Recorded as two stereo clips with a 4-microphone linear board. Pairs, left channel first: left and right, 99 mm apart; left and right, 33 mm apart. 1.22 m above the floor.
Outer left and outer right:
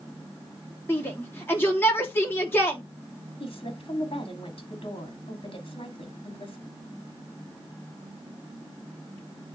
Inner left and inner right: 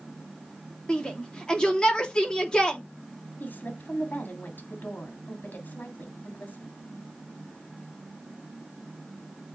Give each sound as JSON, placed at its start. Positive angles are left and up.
{"t": 0.9, "sound": "a shout", "side_deg": 20, "distance_m": 3.0}
{"t": 3.4, "sound": "a woman speaking", "side_deg": 60, "distance_m": 2.5}